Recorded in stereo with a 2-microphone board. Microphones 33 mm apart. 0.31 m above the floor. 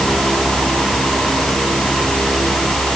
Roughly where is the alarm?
I don't hear an alarm.